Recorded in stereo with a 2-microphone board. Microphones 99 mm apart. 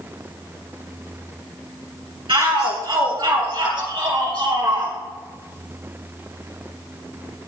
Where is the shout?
60° right (ahead or behind), 3.5 m; by 5.0 s 50° right (ahead or behind), 5.5 m.